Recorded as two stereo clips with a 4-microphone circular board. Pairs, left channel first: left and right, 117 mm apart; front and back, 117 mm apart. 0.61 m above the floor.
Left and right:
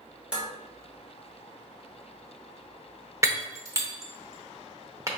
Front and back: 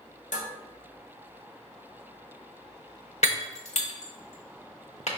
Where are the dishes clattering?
10° right, 1.2 m.